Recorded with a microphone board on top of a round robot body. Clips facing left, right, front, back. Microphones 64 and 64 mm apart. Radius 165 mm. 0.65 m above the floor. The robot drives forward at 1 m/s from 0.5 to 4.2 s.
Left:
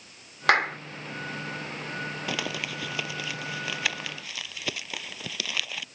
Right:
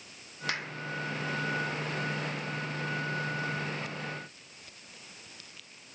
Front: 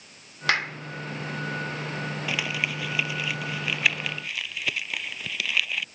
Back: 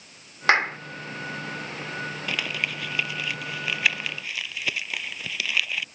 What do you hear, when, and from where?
0.5 s a clap: 120° left; by 0.8 s 125° left
2.3 s crumpling: 85° left; by 5.8 s 90° left